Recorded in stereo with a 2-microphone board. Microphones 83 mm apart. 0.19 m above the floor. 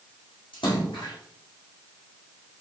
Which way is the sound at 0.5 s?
80° left.